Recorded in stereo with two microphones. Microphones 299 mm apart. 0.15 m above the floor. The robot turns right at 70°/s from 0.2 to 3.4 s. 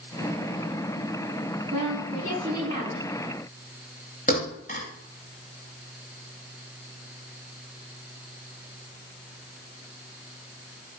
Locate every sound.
1.7 s a woman speaking: 95° right, 8 m; by 3.0 s straight ahead, 8 m
4.3 s a thud: 30° left (ahead or behind), 8 m